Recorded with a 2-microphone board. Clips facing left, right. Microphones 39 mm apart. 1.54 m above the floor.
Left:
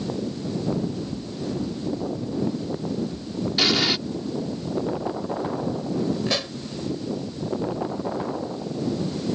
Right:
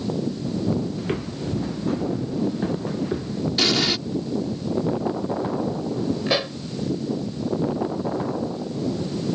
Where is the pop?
15° right (ahead or behind).